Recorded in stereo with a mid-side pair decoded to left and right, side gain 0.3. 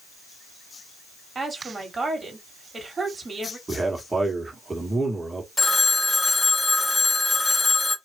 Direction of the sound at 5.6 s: 45° left.